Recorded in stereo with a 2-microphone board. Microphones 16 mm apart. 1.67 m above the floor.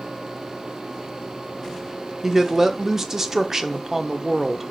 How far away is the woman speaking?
About 0.8 m.